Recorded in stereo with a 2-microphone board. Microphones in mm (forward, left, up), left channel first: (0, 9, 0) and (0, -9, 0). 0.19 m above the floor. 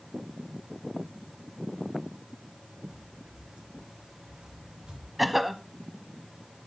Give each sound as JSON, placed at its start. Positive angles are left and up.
{"t": 2.9, "sound": "footsteps", "side_deg": -45, "distance_m": 5.5}
{"t": 5.2, "sound": "a cough", "side_deg": -10, "distance_m": 1.0}